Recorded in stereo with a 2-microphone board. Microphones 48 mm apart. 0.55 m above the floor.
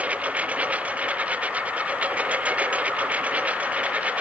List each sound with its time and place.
0.0 s a lawn mower: 30° right (ahead or behind)